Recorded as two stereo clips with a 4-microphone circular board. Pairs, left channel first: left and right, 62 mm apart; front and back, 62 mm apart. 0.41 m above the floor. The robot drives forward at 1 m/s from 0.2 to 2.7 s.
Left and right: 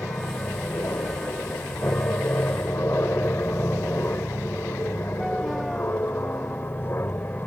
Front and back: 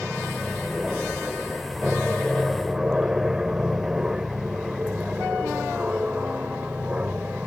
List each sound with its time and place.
0.0 s an aircraft: 90° left; by 7.5 s 120° left